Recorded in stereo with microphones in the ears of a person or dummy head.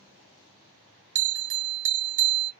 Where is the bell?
65° right (ahead or behind), 1.1 m.